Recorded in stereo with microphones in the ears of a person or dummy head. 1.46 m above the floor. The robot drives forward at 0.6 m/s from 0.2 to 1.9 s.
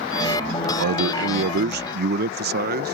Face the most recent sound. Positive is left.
turn(degrees=-50)  # may be behind; listen again after turning